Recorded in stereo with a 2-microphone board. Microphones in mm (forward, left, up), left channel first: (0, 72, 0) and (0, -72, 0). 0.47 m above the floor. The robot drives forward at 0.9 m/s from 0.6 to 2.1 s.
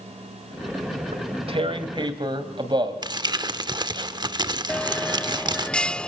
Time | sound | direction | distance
1.1 | tearing paper | 50° right (ahead or behind) | 1.6 m
3.0 | crumpling | 30° right (ahead or behind) | 1.0 m
4.7 | a bell | 5° left (ahead or behind) | 0.6 m